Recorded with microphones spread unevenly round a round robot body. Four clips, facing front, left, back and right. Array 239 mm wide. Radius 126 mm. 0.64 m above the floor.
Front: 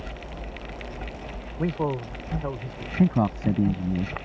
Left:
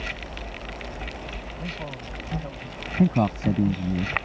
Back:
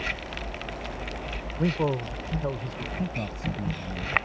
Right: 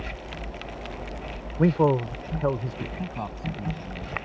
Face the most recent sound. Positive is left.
turn(degrees=45)